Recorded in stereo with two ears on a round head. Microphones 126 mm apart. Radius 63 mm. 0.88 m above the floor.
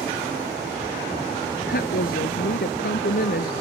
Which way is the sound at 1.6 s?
70° left (ahead or behind).